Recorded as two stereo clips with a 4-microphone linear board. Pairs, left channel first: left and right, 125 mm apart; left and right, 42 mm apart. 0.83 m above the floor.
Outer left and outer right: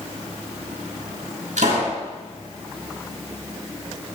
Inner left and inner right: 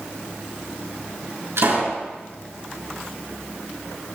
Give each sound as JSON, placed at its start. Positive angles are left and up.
{"t": 1.6, "sound": "a pop", "side_deg": -90, "distance_m": 7.0}